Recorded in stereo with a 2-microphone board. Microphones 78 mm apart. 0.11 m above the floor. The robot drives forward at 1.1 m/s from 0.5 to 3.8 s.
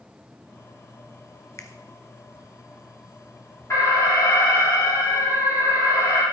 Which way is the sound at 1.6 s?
40° left (ahead or behind).